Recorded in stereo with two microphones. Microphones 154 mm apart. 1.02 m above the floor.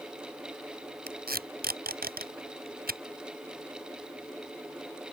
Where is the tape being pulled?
90° right.